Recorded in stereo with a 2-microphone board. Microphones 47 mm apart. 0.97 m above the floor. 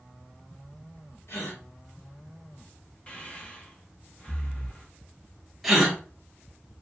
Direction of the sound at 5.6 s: 5° right (ahead or behind).